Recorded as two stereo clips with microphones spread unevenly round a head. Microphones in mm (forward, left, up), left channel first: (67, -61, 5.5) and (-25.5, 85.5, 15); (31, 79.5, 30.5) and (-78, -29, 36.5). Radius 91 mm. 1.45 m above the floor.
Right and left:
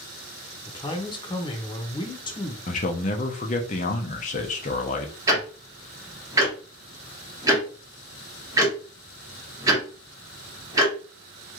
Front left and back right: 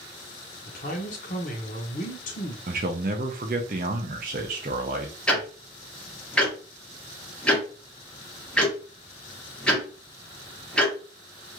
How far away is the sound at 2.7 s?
About 0.5 m.